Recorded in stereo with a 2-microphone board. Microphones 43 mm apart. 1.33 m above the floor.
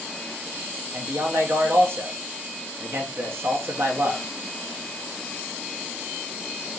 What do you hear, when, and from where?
0.9 s a man speaking: 70° right (ahead or behind), 1.1 m